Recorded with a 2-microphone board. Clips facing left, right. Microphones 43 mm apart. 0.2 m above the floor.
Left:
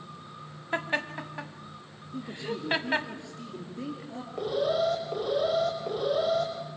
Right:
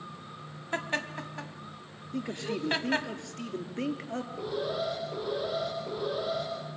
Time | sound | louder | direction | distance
0.7 | laughter | left 2 dB | 15° left (ahead or behind) | 1.2 m
2.1 | a man speaking | right 1 dB | 65° right (ahead or behind) | 3 m
4.4 | an alarm | left 7 dB | 65° left (ahead or behind) | 5.5 m